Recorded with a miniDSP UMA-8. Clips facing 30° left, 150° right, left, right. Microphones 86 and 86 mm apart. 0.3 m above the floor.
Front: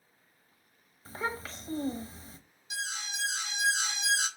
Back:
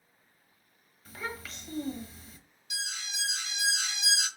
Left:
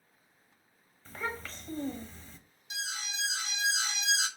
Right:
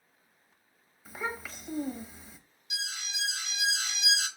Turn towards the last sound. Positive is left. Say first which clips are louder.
# front 2 dB, left 1 dB
turn(degrees=60)